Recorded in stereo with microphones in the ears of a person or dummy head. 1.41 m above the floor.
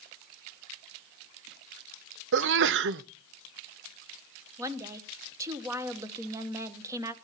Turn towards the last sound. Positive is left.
turn(degrees=-15)  # may be behind; listen again after turning